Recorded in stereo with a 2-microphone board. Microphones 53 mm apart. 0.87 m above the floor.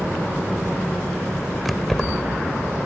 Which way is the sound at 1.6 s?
Centre (ahead or behind).